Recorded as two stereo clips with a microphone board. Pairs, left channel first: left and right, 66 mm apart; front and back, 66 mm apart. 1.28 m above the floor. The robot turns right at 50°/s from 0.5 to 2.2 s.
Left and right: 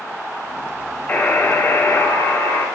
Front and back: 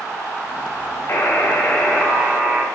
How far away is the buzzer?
About 1.6 m.